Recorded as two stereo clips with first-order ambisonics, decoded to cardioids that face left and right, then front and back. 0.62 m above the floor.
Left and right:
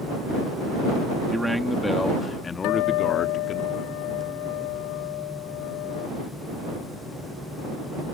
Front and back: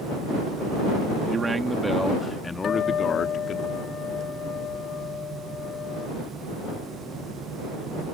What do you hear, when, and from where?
1.3 s a man speaking: 160° right; by 3.6 s 45° left
2.6 s a guitar: 65° left